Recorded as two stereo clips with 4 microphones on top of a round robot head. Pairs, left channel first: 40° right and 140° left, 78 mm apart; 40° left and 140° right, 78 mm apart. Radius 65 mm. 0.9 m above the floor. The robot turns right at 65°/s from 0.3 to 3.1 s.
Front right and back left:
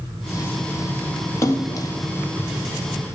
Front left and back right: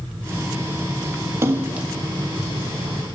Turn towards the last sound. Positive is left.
turn(degrees=20)